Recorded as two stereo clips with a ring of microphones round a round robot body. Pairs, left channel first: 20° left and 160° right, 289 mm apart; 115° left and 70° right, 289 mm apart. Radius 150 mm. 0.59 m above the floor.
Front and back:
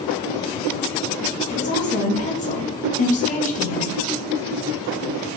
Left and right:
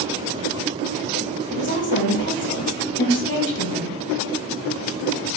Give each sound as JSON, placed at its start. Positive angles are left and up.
{"t": 1.5, "sound": "a woman speaking", "azimuth_deg": 80, "distance_m": 1.0}